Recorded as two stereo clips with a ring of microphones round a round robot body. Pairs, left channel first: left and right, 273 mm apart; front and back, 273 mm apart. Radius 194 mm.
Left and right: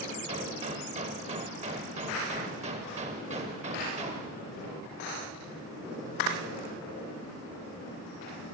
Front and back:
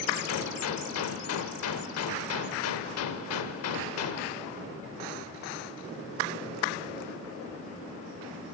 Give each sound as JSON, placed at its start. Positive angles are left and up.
{"t": 0.3, "sound": "a gunshot", "azimuth_deg": -20, "distance_m": 0.7}